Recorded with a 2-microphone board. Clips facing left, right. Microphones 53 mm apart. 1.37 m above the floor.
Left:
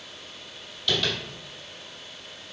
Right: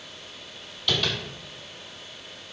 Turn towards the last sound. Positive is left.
turn(degrees=-5)  # may be behind; listen again after turning